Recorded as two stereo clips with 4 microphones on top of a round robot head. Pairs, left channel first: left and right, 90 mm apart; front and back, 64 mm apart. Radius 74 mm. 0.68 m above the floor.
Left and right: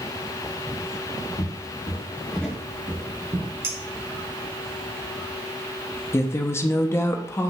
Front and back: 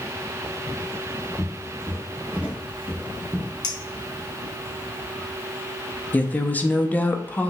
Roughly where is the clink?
Ahead right.